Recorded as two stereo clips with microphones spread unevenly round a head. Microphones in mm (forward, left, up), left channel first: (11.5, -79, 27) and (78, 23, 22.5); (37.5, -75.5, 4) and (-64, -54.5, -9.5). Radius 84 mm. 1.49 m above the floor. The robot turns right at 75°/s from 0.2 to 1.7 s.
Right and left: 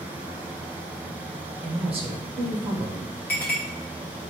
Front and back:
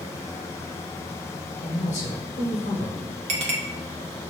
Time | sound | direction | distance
1.6 | a man speaking | 10° left | 1.3 m
3.3 | a clink | 160° left | 0.7 m